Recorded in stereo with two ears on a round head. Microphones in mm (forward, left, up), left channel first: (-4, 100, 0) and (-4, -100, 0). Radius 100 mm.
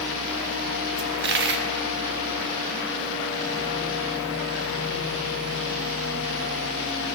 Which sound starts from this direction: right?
A dropped coin, at 1.0 s.